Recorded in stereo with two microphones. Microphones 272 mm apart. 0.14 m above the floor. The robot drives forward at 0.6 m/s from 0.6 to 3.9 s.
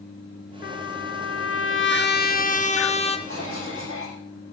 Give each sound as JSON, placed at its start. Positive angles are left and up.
{"t": 0.6, "sound": "a trumpet", "side_deg": 45, "distance_m": 0.7}
{"t": 3.3, "sound": "a cough", "side_deg": 55, "distance_m": 8.0}